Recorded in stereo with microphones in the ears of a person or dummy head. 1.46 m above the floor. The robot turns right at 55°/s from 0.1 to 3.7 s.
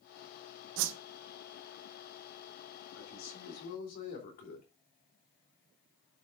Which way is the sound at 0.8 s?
70° right (ahead or behind).